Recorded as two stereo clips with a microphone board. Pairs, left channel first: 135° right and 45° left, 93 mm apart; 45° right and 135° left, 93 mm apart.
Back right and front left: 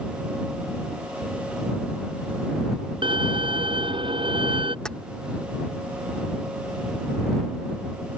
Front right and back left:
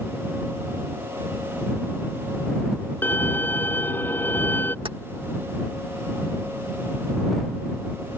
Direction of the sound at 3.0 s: 25° left.